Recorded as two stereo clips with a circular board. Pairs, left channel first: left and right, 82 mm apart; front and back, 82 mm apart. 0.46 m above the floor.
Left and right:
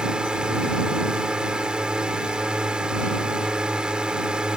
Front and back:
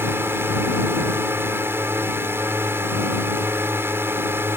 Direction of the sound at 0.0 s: 160° right.